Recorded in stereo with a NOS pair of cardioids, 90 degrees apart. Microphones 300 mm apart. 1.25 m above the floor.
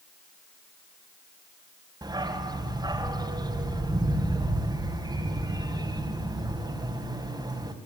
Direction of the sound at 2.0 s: 15° right.